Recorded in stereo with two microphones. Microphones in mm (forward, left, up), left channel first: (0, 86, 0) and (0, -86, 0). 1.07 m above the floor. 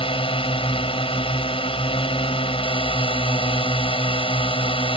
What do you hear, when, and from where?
0.0 s a drone: 30° left (ahead or behind)